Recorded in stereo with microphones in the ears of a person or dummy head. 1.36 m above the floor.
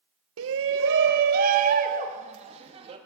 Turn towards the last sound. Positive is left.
turn(degrees=-30)  # may be behind; listen again after turning